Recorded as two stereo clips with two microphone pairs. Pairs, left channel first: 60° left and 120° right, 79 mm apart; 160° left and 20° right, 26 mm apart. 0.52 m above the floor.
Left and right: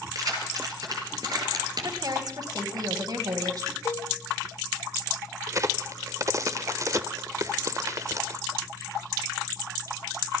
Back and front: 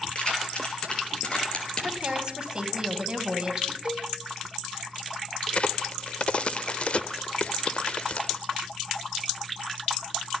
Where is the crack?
165° right, 0.8 m.